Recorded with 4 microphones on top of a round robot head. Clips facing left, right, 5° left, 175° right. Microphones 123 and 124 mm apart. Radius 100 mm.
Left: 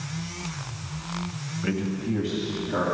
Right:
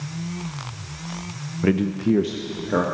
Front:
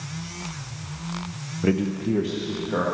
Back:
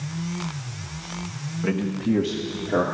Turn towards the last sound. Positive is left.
turn(degrees=-120)